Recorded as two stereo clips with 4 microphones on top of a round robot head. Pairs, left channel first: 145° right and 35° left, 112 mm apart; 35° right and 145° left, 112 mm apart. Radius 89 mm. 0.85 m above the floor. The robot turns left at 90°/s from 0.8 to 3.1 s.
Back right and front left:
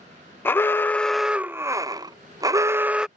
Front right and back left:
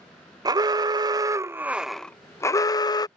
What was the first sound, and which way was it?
An alarm, 160° left.